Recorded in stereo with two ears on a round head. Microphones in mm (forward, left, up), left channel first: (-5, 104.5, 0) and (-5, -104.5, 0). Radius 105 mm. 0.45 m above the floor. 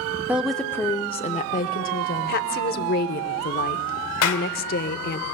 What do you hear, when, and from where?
0.3 s a woman speaking: 5° right (ahead or behind), 0.7 m; by 2.4 s 45° left (ahead or behind), 1.3 m
2.3 s a woman speaking: 45° left (ahead or behind), 0.9 m
4.2 s a clap: 65° left (ahead or behind), 1.5 m